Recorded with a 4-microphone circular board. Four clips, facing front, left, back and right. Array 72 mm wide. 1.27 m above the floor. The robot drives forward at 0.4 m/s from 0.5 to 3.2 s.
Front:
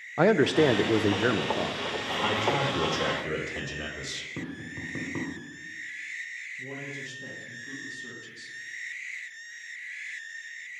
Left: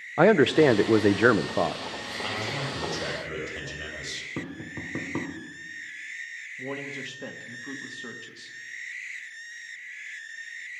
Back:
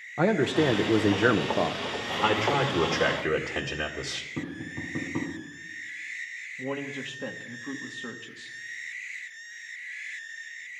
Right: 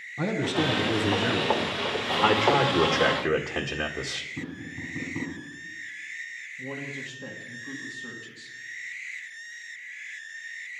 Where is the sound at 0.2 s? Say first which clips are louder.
Left 9 dB, front 2 dB; 75° left, 0.6 m; by 1.8 s 120° left, 0.7 m.